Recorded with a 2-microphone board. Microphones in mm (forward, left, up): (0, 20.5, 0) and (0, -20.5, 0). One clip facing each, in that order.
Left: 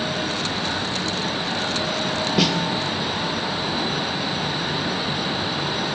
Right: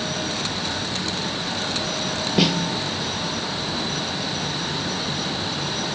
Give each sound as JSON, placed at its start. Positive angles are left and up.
{"t": 2.4, "sound": "a snare drum", "side_deg": 0, "distance_m": 2.0}